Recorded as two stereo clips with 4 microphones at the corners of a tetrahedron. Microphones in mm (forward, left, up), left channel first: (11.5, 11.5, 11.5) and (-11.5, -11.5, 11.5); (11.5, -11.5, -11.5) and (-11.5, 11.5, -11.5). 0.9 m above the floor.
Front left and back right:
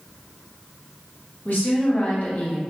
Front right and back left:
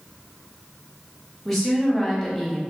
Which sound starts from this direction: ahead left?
A woman speaking, at 1.4 s.